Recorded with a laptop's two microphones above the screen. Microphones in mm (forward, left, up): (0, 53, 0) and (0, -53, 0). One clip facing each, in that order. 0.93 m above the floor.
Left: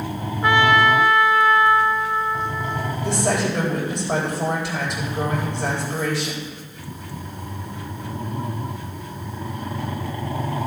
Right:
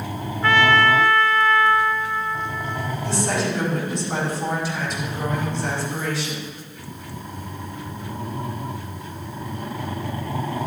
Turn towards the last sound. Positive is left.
turn(degrees=75)  # may be behind; listen again after turning